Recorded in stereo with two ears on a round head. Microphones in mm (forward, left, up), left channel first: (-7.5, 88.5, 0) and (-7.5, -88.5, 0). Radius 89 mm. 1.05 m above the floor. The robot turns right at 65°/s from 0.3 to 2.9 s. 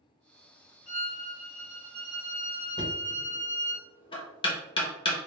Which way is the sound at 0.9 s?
80° left.